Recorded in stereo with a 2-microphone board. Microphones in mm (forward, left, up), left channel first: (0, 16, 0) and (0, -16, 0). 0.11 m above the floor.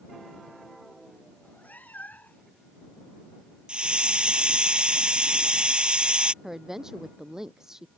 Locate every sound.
1.4 s a cat meowing: 70° left (ahead or behind); by 2.5 s 65° left (ahead or behind)
3.7 s a hiss: 35° right (ahead or behind)
6.4 s a woman speaking: 15° right (ahead or behind)